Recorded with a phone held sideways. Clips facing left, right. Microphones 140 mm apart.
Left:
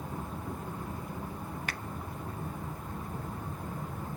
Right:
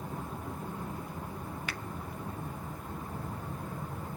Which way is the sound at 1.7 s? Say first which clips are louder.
Left 1 dB; 45° left (ahead or behind).